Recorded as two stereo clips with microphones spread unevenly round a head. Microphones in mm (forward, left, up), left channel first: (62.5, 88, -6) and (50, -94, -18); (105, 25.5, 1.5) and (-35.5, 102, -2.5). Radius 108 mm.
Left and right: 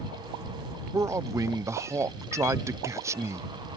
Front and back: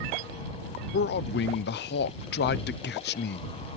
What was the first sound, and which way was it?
A man speaking, 20° right.